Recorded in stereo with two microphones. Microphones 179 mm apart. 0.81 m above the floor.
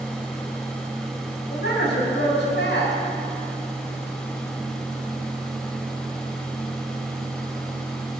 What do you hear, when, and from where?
1.5 s a woman speaking: 85° left, 5 m